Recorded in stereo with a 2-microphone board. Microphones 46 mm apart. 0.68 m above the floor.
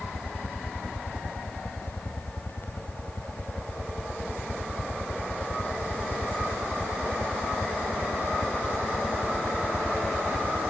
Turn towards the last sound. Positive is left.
turn(degrees=45)  # may be behind; listen again after turning